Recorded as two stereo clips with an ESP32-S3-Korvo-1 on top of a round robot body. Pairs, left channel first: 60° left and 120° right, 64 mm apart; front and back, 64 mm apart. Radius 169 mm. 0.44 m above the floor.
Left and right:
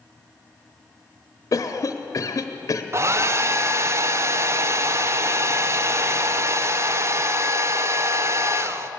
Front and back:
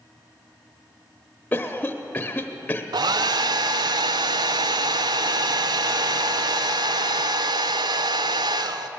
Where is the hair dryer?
170° right, 0.5 m.